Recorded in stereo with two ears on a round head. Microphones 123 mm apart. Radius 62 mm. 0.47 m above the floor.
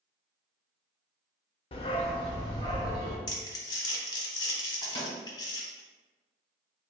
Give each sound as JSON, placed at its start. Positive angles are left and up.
{"t": 1.7, "sound": "a dog barking", "side_deg": 40, "distance_m": 0.5}
{"t": 3.3, "sound": "crumpling", "side_deg": 30, "distance_m": 0.9}
{"t": 4.8, "sound": "a microwave", "side_deg": 35, "distance_m": 1.5}